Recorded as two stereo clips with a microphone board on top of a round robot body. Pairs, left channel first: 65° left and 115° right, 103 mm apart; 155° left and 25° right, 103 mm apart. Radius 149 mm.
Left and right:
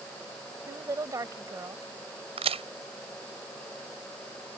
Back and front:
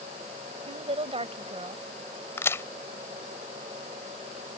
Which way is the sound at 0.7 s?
55° right.